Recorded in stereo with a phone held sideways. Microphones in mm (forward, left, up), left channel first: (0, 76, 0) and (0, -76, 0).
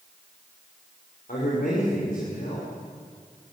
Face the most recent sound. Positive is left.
turn(degrees=65)  # may be behind; listen again after turning